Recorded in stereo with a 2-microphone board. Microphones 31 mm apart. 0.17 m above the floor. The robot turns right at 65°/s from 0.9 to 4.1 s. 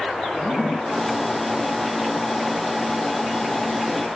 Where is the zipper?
25° left (ahead or behind), 1.2 m; by 4.1 s 50° right (ahead or behind), 1.2 m.